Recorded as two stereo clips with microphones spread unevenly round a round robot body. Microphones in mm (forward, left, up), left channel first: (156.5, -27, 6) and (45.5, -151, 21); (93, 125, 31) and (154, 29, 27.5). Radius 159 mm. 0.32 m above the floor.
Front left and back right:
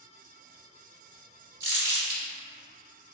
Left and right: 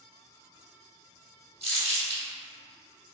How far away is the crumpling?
About 1.3 m.